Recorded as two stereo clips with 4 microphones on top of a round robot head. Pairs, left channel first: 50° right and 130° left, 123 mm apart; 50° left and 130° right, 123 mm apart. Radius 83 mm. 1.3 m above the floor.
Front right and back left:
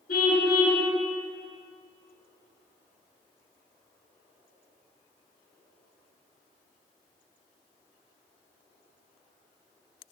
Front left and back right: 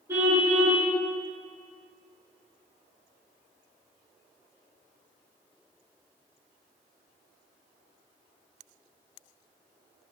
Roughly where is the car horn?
Ahead right.